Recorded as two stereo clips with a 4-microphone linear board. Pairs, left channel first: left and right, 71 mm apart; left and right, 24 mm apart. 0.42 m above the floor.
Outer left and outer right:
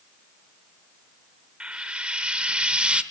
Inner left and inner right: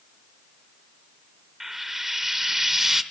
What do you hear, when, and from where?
1.6 s frying: 15° right (ahead or behind), 0.9 m